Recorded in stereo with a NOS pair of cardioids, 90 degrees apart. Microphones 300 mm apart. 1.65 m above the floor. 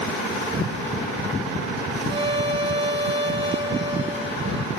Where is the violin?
20° right, 1.8 m.